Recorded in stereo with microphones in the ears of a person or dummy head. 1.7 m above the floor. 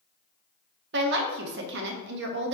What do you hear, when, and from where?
0.9 s a woman speaking: 60° right (ahead or behind), 0.9 m